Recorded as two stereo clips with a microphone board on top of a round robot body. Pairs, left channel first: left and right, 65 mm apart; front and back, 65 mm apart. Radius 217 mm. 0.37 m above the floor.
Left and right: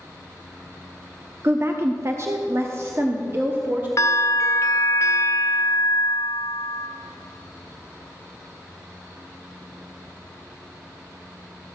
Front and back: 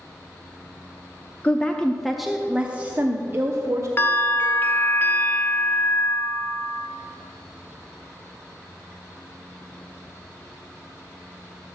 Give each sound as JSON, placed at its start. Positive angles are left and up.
{"t": 1.4, "sound": "a woman speaking", "azimuth_deg": -60, "distance_m": 1.1}
{"t": 4.0, "sound": "a bell", "azimuth_deg": 50, "distance_m": 1.0}